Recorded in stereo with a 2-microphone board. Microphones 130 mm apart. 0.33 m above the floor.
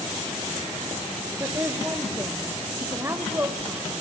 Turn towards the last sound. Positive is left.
turn(degrees=-20)  # may be behind; listen again after turning